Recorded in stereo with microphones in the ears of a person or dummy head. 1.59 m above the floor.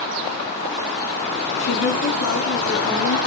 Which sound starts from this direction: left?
A woman speaking, at 1.6 s.